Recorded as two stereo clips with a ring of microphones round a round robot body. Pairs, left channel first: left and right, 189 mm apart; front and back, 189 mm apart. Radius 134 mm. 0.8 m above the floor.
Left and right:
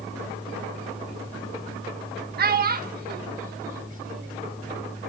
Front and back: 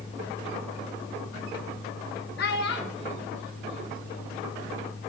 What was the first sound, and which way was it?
A child speaking, 50° right.